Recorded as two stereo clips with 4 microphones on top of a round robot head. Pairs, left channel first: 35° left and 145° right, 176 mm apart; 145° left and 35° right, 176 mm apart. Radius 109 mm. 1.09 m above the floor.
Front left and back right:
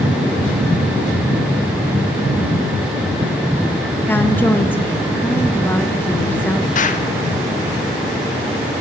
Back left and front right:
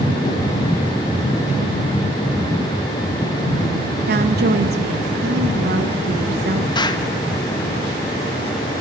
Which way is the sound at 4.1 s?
40° right.